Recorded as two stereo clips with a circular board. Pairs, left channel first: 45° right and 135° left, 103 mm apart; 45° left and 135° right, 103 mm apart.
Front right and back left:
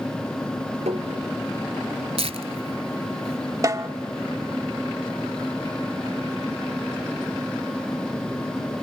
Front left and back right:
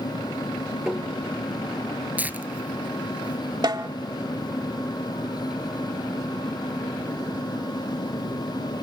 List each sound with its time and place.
0.9 s tapping: 140° left, 5.5 m
2.2 s tearing paper: 150° left, 0.9 m
3.6 s a snare drum: 175° right, 1.3 m